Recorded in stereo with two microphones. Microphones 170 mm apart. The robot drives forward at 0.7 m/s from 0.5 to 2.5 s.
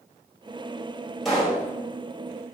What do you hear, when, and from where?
1.2 s a pop: centre (ahead or behind), 1.5 m